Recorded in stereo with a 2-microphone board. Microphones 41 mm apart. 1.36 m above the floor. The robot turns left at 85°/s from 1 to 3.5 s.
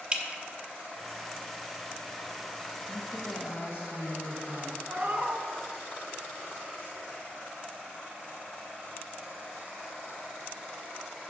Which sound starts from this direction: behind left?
A woman speaking, at 2.9 s.